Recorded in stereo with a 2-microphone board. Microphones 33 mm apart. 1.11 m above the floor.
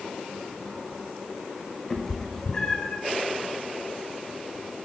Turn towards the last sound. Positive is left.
turn(degrees=25)  # may be behind; listen again after turning